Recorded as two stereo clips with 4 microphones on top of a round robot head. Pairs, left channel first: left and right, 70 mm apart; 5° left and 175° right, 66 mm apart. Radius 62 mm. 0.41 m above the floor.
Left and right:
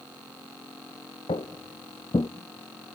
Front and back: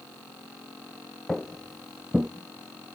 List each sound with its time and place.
1.3 s footsteps: 85° left, 0.9 m; by 2.3 s 120° left, 0.5 m